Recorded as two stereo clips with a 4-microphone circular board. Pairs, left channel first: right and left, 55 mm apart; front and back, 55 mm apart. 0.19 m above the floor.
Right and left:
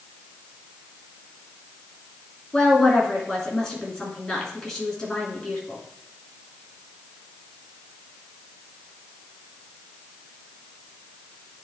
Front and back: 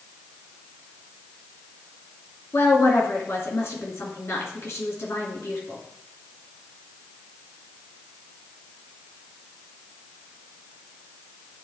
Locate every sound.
2.5 s a woman speaking: 15° right, 2.5 m